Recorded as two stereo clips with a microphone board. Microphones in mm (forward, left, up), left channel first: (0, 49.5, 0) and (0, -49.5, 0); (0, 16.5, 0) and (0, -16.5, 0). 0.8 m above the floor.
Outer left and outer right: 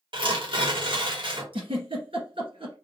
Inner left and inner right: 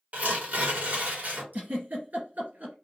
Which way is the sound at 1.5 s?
65° right (ahead or behind).